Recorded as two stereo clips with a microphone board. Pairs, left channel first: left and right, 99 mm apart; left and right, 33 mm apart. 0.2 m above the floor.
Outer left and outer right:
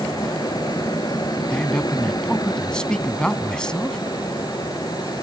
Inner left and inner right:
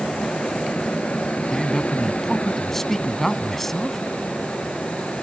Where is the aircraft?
45° left (ahead or behind).